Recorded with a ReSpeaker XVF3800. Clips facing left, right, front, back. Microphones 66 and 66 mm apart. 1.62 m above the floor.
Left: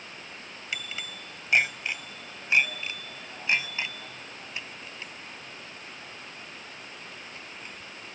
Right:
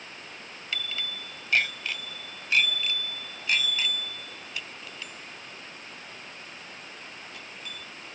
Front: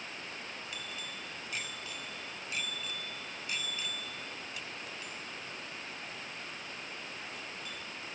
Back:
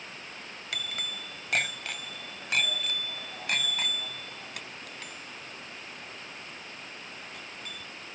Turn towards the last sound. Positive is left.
turn(degrees=150)